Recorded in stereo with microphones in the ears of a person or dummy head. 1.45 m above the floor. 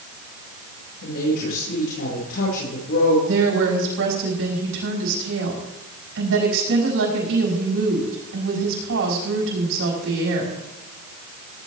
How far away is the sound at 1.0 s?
About 6 m.